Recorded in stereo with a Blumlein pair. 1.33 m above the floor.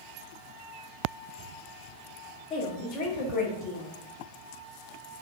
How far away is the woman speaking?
About 0.9 m.